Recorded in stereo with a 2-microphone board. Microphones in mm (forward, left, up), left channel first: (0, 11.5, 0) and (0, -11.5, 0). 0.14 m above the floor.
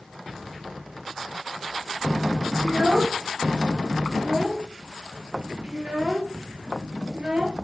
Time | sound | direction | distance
2.6 | a child speaking | 45° right (ahead or behind) | 1.3 m